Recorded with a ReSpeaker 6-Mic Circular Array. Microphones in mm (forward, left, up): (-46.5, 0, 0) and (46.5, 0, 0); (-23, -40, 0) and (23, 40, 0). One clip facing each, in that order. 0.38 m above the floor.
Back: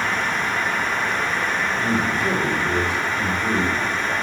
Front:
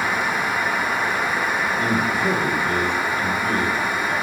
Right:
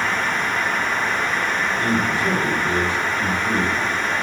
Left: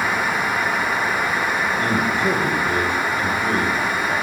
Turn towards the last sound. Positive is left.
turn(degrees=140)